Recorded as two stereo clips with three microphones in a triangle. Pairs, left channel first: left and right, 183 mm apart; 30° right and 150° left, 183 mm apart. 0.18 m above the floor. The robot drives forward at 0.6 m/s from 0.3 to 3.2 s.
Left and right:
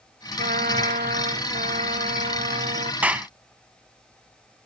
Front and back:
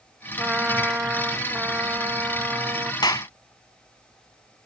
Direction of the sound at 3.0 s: 20° right.